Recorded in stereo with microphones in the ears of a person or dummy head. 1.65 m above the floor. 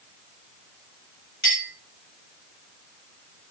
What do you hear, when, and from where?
1.4 s a clink: 45° left (ahead or behind), 1.3 m